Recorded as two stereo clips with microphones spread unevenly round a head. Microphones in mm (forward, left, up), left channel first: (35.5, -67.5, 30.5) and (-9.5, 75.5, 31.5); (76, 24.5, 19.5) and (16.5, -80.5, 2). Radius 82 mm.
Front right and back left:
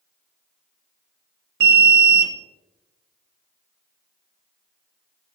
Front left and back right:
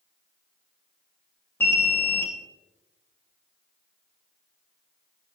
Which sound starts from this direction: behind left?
An alarm, at 1.6 s.